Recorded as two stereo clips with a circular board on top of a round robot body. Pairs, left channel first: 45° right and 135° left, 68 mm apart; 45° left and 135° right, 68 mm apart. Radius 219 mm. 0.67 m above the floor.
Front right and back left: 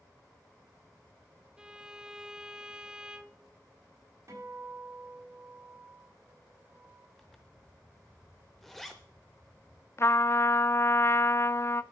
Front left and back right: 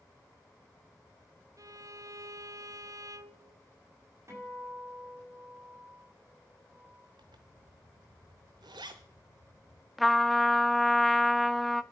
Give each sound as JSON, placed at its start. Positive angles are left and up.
{"t": 1.6, "sound": "a violin", "azimuth_deg": -150, "distance_m": 1.1}
{"t": 4.3, "sound": "a guitar", "azimuth_deg": 175, "distance_m": 6.0}
{"t": 7.2, "sound": "a zipper", "azimuth_deg": -135, "distance_m": 0.6}
{"t": 10.0, "sound": "a trumpet", "azimuth_deg": -45, "distance_m": 1.0}